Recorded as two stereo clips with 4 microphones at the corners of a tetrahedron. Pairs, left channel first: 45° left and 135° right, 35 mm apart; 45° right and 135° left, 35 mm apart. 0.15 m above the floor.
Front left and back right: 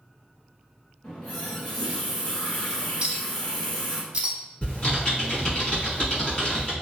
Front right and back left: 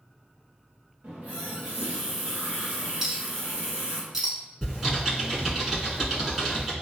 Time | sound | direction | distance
1.0 | a running tap | 100° left | 1.2 m
3.0 | a clink | 165° right | 0.7 m
4.6 | typing on a keyboard | 60° left | 1.3 m